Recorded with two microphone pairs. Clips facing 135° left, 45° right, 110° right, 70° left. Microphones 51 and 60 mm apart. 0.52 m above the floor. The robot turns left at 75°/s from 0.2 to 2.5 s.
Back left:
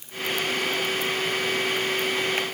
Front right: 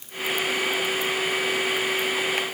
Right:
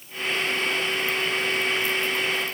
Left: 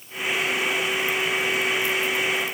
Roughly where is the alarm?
I don't hear an alarm.